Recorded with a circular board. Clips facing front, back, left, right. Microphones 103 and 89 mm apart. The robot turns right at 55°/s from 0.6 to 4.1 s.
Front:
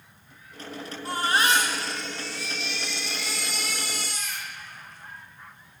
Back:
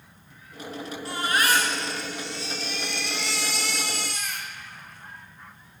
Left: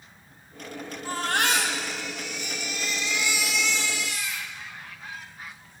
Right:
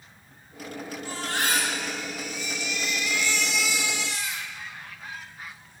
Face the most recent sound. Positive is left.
turn(degrees=-150)